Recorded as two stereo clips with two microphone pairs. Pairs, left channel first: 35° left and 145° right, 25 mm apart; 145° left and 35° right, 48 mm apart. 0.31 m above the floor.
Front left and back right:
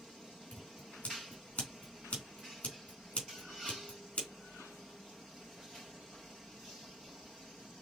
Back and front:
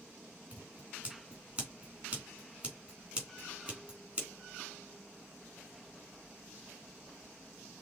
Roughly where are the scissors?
Ahead left.